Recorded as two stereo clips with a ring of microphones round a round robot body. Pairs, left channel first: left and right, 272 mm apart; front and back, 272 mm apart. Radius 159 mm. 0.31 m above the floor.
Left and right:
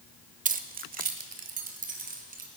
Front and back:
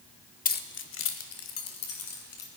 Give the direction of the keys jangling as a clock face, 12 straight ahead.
1 o'clock.